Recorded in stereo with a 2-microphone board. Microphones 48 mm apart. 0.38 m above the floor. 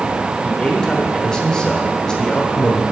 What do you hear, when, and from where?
0.4 s a man speaking: 15° left (ahead or behind), 1.1 m